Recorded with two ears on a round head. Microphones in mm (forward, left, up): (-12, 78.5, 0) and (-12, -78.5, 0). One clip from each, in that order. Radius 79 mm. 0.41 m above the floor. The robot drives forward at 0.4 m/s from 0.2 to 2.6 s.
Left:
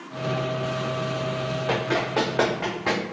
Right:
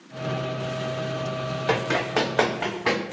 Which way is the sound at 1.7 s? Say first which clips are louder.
Right 2 dB; 70° right (ahead or behind).